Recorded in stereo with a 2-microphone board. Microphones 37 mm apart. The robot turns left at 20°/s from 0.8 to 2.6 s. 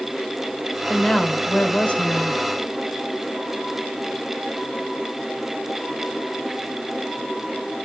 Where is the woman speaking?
145° left, 1.0 m; by 2.4 s 110° left, 1.0 m.